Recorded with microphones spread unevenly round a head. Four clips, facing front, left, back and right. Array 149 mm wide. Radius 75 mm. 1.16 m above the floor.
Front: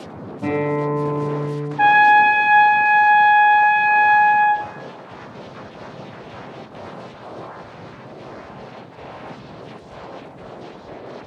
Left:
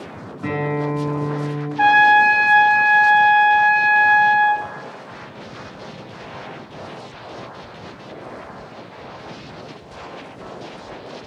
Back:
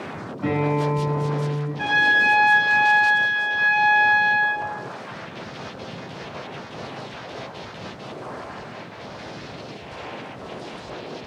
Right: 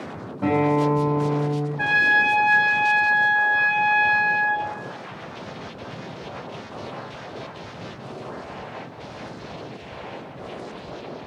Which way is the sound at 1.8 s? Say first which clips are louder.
Left 10 dB, front 9 dB; 40° left.